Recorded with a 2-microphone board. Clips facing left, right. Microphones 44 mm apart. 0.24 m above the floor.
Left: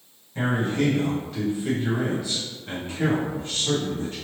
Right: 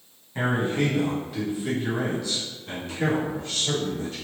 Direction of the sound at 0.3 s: 30° right (ahead or behind).